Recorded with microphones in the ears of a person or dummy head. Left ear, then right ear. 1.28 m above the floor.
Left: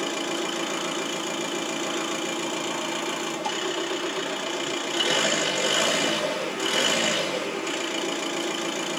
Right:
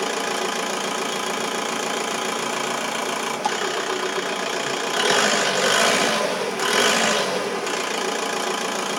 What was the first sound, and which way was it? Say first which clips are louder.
An engine running: right 4 dB; 35° right (ahead or behind).